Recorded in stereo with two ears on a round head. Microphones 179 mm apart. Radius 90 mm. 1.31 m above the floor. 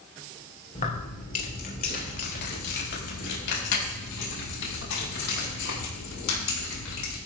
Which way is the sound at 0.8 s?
35° left (ahead or behind).